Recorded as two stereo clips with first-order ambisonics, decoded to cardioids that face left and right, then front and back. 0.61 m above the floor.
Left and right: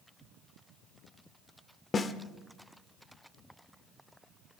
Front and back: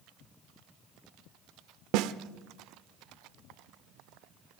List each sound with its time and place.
1.9 s a snare drum: 160° left, 0.7 m